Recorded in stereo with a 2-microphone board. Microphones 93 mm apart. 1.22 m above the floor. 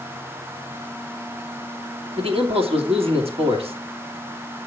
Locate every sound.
2.2 s a man speaking: 90° right, 2.5 m